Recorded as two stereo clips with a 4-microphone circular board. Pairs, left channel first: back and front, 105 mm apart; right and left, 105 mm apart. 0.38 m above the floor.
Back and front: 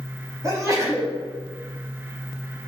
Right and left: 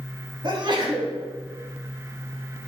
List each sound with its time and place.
0.4 s a sneeze: 55° left, 3.5 m